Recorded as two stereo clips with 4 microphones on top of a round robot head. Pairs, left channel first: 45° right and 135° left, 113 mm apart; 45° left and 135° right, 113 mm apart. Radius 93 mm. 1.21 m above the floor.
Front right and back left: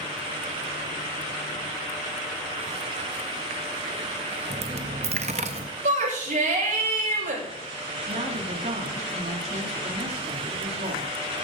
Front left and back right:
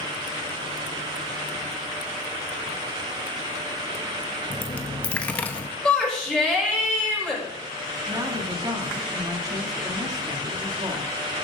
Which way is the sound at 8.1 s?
165° left.